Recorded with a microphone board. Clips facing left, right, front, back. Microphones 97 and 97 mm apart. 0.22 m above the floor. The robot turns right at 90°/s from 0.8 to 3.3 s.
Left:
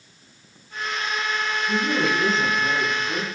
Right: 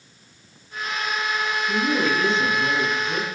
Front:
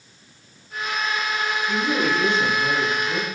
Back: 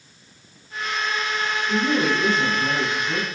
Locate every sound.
1.7 s a woman speaking: 135° left, 0.9 m; by 3.4 s 80° right, 0.9 m